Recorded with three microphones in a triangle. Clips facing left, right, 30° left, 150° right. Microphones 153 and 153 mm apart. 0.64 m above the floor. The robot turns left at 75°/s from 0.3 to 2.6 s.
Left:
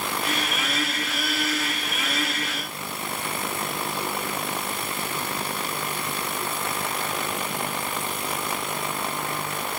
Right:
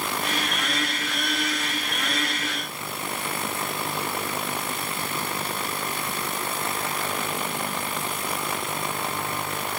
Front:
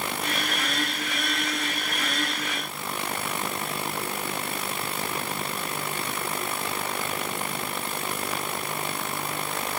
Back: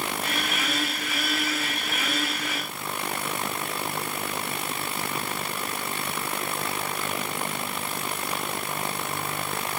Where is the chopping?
No chopping in this recording.